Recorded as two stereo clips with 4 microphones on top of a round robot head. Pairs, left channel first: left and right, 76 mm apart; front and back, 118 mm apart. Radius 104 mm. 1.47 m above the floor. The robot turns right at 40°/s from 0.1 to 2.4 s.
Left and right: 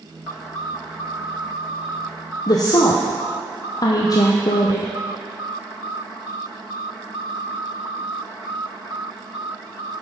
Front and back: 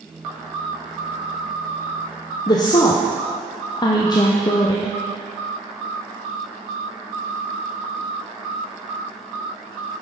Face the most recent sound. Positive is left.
turn(degrees=55)